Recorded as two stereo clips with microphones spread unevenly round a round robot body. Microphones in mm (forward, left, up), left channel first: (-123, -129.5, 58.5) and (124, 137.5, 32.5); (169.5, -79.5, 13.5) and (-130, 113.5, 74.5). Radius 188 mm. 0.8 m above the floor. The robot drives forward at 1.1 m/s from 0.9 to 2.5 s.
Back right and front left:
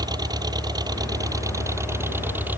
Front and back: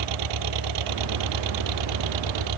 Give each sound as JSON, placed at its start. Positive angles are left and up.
{"t": 0.0, "sound": "an engine running", "azimuth_deg": 130}